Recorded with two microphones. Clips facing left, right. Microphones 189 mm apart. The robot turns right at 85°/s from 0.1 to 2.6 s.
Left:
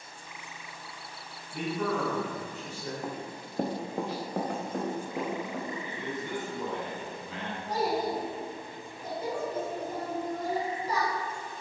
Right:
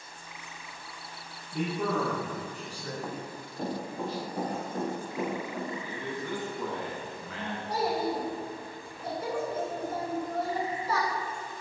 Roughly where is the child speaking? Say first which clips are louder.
Even; centre.